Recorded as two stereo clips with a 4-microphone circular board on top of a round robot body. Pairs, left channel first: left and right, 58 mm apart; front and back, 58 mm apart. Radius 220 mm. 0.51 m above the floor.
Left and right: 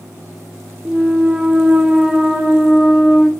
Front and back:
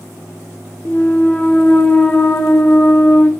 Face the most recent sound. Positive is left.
turn(degrees=-20)